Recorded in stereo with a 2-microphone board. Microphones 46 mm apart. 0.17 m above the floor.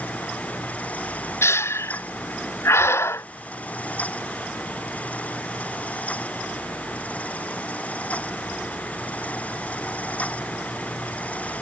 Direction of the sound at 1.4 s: 65° left (ahead or behind).